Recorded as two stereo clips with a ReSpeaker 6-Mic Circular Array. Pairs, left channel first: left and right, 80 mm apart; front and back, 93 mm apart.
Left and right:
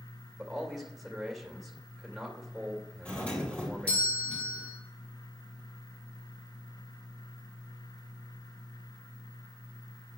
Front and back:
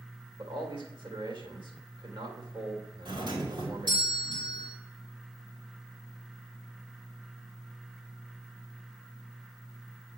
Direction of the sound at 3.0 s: 160° left.